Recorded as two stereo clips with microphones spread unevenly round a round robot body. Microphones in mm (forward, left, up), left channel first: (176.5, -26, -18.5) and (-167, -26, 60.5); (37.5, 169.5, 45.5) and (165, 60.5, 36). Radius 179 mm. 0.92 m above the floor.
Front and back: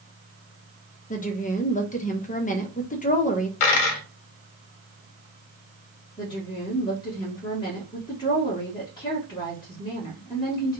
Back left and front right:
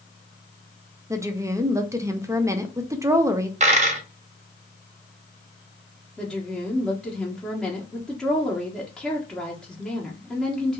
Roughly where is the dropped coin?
Ahead.